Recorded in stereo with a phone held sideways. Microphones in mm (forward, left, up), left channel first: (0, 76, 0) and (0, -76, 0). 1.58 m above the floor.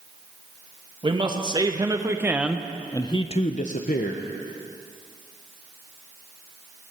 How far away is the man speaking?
About 1.7 m.